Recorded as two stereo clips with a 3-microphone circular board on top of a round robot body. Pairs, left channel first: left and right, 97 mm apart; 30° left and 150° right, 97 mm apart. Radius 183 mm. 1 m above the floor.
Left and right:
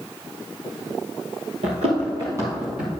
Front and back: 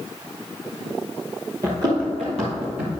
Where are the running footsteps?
90° right, 1.3 m; by 2.9 s 170° right, 1.6 m.